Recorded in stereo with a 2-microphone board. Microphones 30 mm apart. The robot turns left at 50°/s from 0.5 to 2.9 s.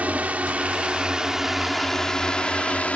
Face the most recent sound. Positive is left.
turn(degrees=50)  # may be behind; listen again after turning